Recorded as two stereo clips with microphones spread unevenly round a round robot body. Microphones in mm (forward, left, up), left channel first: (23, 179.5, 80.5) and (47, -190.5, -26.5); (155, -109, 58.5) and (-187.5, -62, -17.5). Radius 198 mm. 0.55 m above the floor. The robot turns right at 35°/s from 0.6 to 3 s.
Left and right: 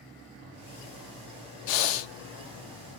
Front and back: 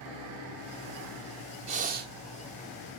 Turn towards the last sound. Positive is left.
turn(degrees=160)